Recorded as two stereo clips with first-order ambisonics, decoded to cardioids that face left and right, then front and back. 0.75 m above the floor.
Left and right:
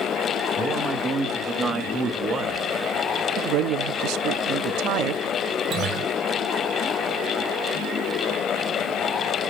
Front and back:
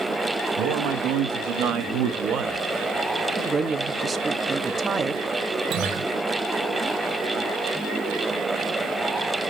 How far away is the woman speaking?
About 0.7 m.